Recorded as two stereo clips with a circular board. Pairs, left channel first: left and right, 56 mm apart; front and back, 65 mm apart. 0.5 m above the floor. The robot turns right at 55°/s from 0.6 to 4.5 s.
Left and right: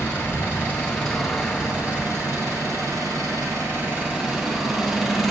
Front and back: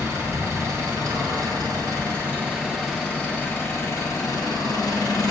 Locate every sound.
0.0 s an engine running: 145° left, 4 m; by 5.3 s straight ahead, 4 m